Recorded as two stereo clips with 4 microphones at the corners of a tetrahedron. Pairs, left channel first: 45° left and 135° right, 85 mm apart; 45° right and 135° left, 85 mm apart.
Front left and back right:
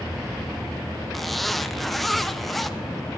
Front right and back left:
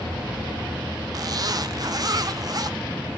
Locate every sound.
1.1 s a zipper: 135° left, 0.6 m